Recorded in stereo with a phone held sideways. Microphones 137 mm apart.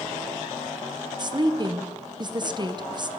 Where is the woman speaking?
35° right (ahead or behind), 0.7 m.